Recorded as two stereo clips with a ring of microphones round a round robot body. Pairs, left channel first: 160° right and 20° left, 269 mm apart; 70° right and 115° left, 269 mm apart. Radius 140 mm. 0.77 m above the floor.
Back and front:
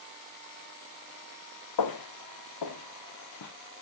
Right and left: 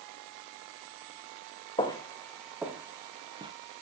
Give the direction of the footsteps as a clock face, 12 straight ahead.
5 o'clock.